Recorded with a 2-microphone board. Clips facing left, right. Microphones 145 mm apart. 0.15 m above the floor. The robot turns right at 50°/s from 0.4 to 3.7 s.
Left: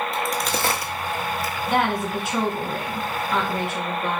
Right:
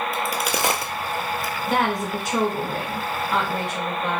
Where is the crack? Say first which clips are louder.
Even; 5° right (ahead or behind), 0.7 m; by 1.5 s 60° right (ahead or behind), 0.7 m.